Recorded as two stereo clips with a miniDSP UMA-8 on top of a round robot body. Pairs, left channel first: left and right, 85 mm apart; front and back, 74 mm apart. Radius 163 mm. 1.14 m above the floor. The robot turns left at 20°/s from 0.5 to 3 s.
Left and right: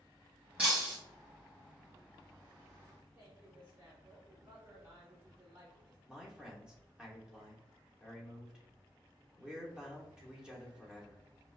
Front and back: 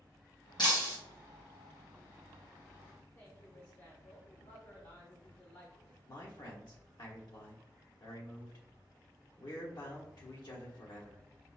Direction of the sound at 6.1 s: 10° right.